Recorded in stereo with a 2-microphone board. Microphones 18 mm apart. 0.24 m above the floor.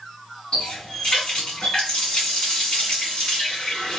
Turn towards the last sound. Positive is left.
turn(degrees=60)  # may be behind; listen again after turning